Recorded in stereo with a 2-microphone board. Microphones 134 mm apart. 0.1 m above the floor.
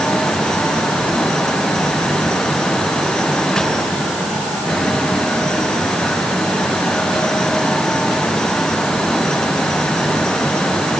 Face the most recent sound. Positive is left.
No sound to turn to.